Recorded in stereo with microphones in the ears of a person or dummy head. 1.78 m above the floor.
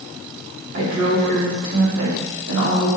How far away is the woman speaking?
About 4 m.